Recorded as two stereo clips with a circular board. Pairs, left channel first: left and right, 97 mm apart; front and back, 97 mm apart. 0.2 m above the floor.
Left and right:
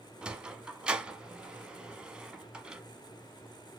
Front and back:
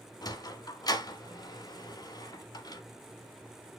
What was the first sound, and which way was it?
A sliding door, 15° right.